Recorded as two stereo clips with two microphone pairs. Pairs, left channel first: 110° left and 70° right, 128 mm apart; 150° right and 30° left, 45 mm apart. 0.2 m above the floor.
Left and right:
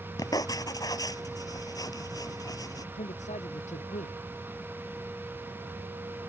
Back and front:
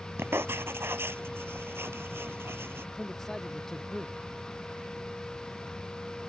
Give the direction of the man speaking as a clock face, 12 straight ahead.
8 o'clock.